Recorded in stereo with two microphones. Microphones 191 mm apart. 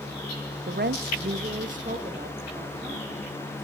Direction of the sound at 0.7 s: 50° right (ahead or behind).